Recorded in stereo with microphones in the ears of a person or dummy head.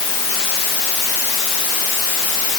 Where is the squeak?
I don't hear a squeak.